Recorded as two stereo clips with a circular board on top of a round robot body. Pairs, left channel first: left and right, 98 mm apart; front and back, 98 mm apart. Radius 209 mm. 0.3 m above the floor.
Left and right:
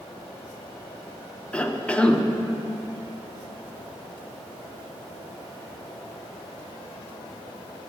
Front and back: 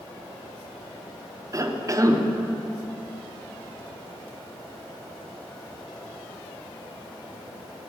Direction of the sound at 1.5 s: 160° left.